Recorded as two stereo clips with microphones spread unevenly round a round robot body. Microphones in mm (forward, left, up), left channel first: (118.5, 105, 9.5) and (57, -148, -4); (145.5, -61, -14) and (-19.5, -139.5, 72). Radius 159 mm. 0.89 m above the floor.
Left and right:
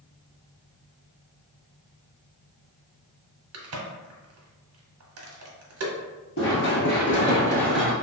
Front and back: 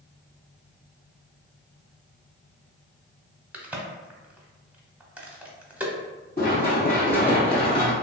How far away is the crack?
About 0.9 m.